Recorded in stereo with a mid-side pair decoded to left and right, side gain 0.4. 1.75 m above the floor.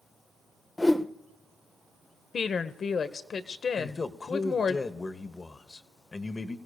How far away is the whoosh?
About 0.8 m.